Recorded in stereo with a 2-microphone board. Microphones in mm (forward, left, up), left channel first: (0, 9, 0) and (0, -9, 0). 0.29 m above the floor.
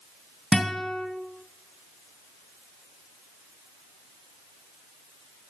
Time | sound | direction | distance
0.5 | a guitar | 45° left (ahead or behind) | 1.8 m